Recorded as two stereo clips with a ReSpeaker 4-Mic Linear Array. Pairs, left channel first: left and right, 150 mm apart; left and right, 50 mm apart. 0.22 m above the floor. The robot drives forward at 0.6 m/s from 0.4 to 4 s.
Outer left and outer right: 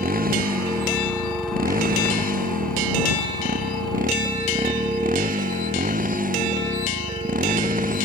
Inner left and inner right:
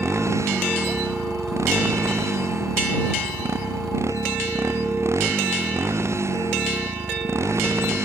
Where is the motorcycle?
70° right (ahead or behind); by 8.1 s 65° right (ahead or behind).